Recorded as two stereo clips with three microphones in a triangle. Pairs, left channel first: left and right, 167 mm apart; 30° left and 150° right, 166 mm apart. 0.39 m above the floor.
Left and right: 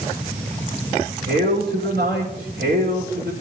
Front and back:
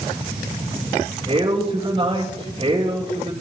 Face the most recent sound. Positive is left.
turn(degrees=-90)